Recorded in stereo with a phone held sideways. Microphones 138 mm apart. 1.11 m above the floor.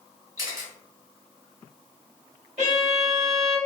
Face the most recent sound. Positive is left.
turn(degrees=-55)  # may be behind; listen again after turning